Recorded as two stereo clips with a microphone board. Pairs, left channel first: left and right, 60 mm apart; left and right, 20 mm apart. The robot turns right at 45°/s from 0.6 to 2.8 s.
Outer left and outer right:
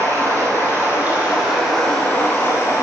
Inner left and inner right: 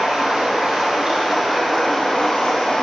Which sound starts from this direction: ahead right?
Running water, at 0.0 s.